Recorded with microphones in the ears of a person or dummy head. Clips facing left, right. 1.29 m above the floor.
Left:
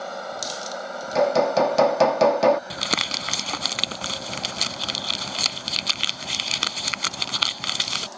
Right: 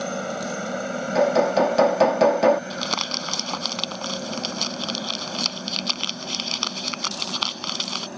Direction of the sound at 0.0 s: 35° right (ahead or behind).